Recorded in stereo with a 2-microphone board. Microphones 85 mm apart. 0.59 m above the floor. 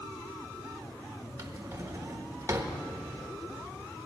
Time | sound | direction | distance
1.4 | a drawer | 30° right (ahead or behind) | 1.1 m